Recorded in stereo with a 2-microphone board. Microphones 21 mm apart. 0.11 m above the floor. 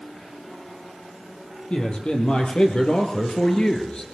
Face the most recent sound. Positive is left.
turn(degrees=40)  # may be behind; listen again after turning